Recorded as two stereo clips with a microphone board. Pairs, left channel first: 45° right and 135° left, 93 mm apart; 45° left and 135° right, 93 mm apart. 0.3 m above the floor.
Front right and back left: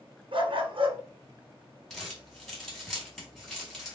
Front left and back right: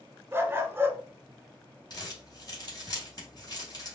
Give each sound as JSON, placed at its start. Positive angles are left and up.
{"t": 0.3, "sound": "a dog barking", "azimuth_deg": 160, "distance_m": 0.8}
{"t": 1.9, "sound": "crumpling", "azimuth_deg": 45, "distance_m": 1.9}